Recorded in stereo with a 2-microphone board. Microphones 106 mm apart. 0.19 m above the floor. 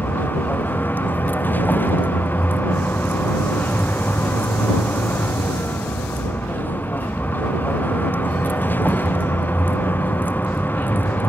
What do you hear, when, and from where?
0.0 s a vehicle: 15° left (ahead or behind)